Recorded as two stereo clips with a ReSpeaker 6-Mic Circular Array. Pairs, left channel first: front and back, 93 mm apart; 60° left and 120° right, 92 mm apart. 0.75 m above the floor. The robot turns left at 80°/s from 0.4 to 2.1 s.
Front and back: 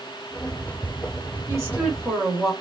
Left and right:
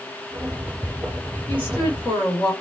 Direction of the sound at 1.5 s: 130° left.